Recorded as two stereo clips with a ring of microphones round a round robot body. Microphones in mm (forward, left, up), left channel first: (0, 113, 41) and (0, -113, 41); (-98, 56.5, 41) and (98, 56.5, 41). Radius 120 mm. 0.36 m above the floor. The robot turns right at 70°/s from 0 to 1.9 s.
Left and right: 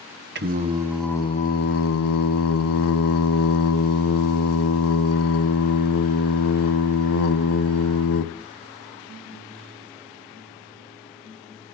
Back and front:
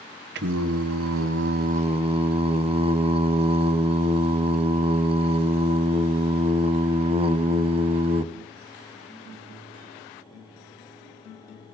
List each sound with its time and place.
0.3 s singing: 45° right, 0.7 m; by 8.3 s 65° left, 0.7 m